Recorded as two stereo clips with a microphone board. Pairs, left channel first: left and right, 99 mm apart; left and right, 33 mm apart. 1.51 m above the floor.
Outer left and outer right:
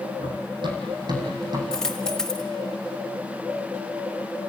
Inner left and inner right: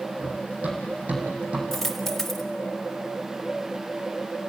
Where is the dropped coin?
5° left (ahead or behind), 1.3 m.